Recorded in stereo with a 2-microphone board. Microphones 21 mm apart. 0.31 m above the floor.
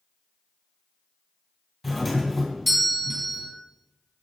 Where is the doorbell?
5° left (ahead or behind), 2.5 m.